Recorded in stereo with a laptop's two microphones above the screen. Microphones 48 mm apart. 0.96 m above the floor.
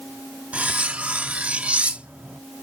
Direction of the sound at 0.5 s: 30° right (ahead or behind).